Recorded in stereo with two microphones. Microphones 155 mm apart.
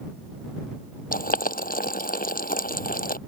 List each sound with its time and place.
1.1 s boiling: 70° left (ahead or behind)